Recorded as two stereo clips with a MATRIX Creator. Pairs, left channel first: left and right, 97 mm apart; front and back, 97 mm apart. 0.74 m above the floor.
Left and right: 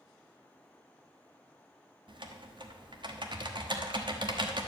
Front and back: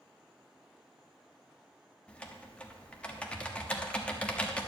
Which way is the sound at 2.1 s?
75° right.